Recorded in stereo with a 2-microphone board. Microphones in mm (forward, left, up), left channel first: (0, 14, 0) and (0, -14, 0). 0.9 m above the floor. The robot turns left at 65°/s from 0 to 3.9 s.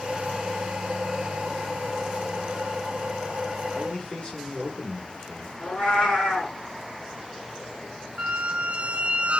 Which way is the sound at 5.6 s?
35° left (ahead or behind).